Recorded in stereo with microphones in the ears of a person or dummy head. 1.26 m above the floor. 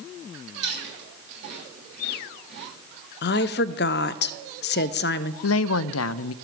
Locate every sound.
0.5 s chewing: 45° right (ahead or behind), 8.5 m
3.2 s a woman speaking: 55° left (ahead or behind), 0.6 m
5.4 s a woman speaking: 80° left, 0.5 m